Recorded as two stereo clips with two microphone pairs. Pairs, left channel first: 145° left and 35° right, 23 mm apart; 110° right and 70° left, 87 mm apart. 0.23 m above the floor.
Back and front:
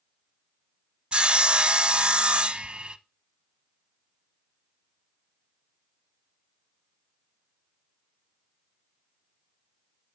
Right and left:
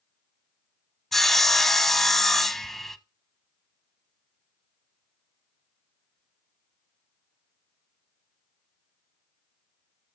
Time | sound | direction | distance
1.1 | sawing | 25° right | 0.7 m